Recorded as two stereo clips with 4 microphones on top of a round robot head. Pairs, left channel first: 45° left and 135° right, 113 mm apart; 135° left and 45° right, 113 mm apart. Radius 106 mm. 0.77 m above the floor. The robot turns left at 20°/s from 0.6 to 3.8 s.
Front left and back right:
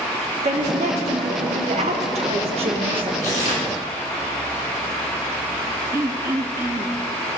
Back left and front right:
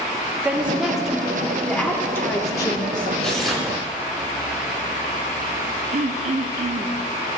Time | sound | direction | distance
0.4 | a woman speaking | 125° right | 1.9 m
3.2 | tearing paper | 50° left | 2.5 m
5.9 | throat clearing | 65° right | 0.5 m